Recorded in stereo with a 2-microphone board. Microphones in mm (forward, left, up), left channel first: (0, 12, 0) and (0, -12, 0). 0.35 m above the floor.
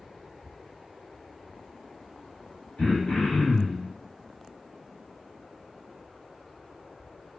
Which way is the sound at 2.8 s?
30° left (ahead or behind).